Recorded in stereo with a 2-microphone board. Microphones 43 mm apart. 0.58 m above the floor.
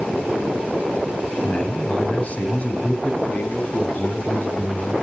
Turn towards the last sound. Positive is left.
turn(degrees=40)  # may be behind; listen again after turning